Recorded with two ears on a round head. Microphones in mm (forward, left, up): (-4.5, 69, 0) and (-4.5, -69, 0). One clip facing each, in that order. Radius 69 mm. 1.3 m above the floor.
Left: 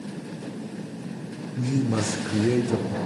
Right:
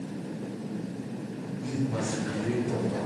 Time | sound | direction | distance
1.6 | a man speaking | 65° left (ahead or behind) | 1.0 m